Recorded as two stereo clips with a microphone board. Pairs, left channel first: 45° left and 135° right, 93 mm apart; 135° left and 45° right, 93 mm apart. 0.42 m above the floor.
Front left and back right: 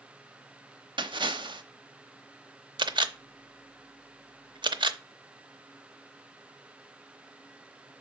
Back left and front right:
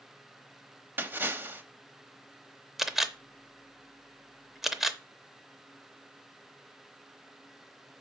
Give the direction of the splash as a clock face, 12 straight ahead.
4 o'clock.